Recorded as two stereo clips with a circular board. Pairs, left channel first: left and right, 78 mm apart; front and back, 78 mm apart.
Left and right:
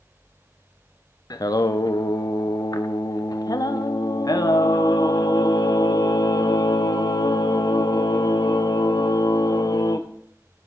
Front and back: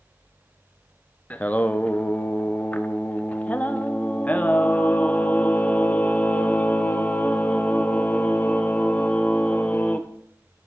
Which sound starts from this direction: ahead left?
Singing, at 1.3 s.